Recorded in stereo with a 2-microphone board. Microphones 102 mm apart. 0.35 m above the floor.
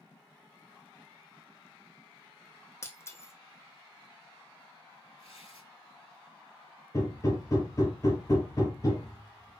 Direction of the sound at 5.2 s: 65° left (ahead or behind).